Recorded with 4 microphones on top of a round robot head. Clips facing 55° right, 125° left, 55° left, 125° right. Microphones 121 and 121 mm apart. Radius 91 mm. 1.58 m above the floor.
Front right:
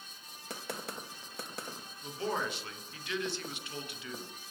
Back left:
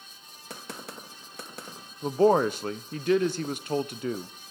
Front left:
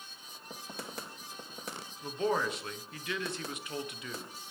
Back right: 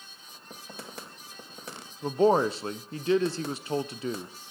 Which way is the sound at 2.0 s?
175° left.